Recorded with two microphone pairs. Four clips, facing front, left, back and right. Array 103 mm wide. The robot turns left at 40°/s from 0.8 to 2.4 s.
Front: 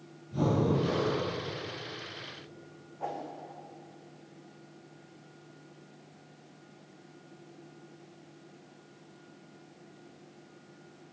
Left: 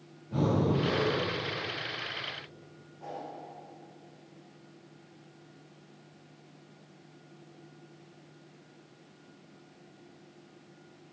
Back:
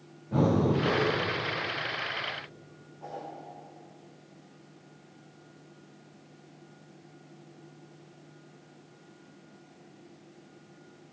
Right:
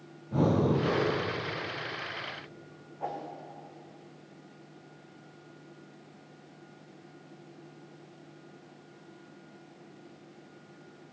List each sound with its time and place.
0.3 s breathing: 170° right, 9 m; by 1.2 s 175° left, 9 m
3.0 s a whoosh: 50° right, 5.5 m